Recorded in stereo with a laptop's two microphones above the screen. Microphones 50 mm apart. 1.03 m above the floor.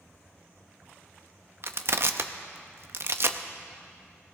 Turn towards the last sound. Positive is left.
turn(degrees=-55)  # may be behind; listen again after turning